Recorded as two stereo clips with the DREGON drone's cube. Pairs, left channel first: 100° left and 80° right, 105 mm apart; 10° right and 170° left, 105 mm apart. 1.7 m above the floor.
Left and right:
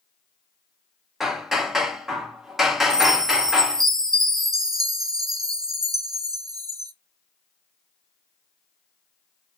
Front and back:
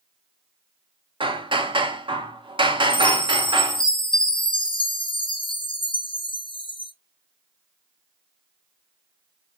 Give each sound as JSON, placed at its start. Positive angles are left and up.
{"t": 1.2, "sound": "hammering", "azimuth_deg": -165, "distance_m": 0.7}
{"t": 2.9, "sound": "a chime", "azimuth_deg": -25, "distance_m": 0.5}